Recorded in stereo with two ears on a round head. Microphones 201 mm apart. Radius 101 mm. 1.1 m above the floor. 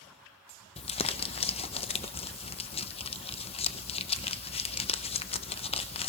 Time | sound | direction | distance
0.8 | crumpling | 25° left (ahead or behind) | 0.6 m